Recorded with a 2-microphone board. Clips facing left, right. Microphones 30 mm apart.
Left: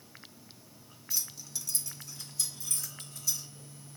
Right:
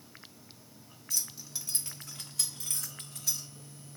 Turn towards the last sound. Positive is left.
turn(degrees=-85)